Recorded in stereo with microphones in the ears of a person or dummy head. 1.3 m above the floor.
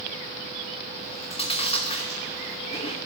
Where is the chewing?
30° left (ahead or behind), 1.0 m.